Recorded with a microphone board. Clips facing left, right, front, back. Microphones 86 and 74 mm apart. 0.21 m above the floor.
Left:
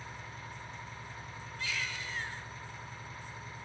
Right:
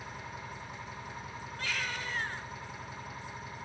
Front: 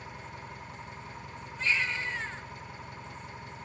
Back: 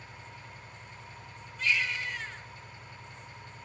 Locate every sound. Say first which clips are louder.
0.0 s an engine running: right 3 dB, front 5 dB; 10° right, 9 m
1.6 s a baby crying: right 2 dB, even; 55° right, 1.8 m